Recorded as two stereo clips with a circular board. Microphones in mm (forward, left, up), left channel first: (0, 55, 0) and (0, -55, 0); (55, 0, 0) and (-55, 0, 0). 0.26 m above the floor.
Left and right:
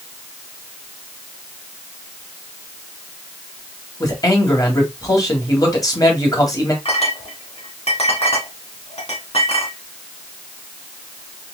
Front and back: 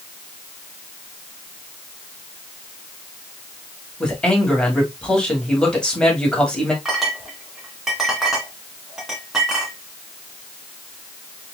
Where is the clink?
95° left, 1.9 m.